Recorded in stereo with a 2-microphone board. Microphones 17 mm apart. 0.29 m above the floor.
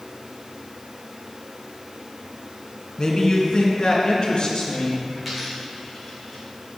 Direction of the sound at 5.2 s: 20° right (ahead or behind).